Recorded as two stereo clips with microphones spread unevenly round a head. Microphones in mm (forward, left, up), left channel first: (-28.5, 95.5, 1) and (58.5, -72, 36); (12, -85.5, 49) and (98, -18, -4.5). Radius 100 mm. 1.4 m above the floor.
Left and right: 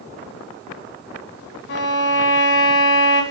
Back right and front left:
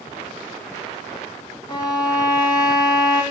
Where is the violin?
145° left, 2 m.